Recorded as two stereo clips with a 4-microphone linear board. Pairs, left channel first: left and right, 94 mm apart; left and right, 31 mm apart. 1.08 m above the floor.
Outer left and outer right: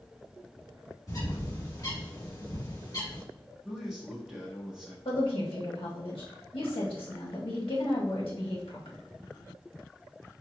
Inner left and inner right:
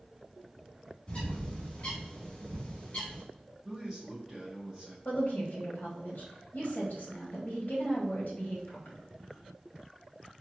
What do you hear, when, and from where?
1.1 s a bird: 35° left (ahead or behind), 1.7 m
3.6 s a man speaking: 10° right (ahead or behind), 0.9 m
5.0 s a woman speaking: 65° left (ahead or behind), 1.2 m